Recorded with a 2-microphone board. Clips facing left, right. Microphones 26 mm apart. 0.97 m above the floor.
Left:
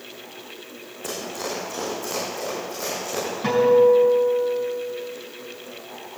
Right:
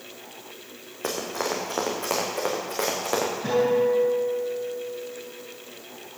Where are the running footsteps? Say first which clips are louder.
Right 2 dB; 40° right (ahead or behind), 4 m; by 3.3 s 60° right (ahead or behind), 5.5 m.